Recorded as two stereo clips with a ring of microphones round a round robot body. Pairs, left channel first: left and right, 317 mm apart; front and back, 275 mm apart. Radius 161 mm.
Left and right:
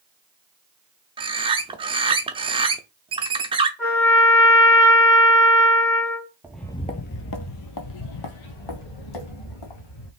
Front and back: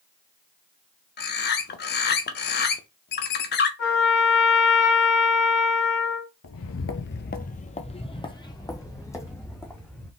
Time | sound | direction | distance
1.2 | a bird | 25° right | 0.7 m
3.8 | a trumpet | 10° left | 3.5 m
6.4 | footsteps | 10° right | 0.6 m